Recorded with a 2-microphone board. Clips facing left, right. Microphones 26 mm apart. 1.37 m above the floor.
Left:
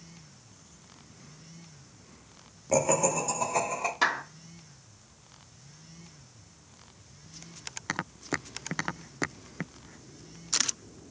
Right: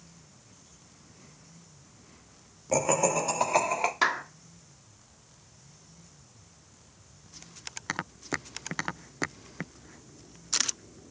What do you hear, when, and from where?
2.7 s laughter: centre (ahead or behind), 0.7 m; by 3.9 s 65° right (ahead or behind), 1.2 m
4.0 s a clap: 10° right (ahead or behind), 1.1 m